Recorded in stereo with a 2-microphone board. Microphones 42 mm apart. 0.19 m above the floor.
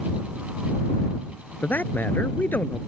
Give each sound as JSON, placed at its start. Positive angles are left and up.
{"t": 1.6, "sound": "a man speaking", "side_deg": 55}